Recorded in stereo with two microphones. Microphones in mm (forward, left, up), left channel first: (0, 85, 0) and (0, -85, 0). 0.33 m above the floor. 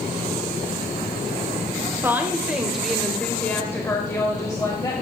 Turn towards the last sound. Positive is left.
turn(degrees=25)  # may be behind; listen again after turning